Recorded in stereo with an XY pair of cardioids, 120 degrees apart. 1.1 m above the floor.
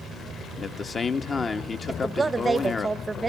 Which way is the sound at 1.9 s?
20° right.